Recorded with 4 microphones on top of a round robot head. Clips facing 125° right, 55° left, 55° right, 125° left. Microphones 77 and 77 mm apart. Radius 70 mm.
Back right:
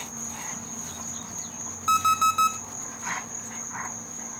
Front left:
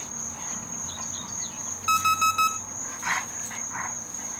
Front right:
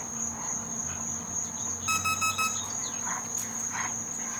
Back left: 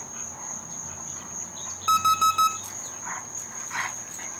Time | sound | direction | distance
0.0 | an insect | 110° right | 5 m
1.9 | an alarm clock | 170° left | 1.2 m